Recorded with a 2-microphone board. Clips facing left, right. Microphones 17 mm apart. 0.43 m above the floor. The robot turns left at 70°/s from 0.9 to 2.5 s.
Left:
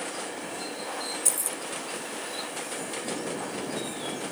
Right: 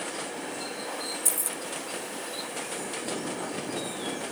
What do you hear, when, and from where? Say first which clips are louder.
1.2 s keys jangling: left 1 dB; 25° left (ahead or behind); by 1.6 s centre (ahead or behind)